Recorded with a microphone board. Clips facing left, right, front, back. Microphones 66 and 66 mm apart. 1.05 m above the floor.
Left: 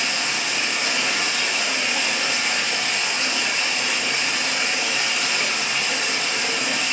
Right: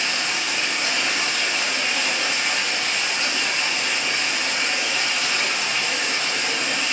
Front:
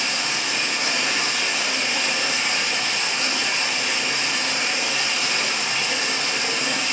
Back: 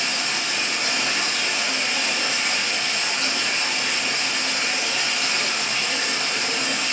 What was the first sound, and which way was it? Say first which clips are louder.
Running water: even, front 1 dB; straight ahead.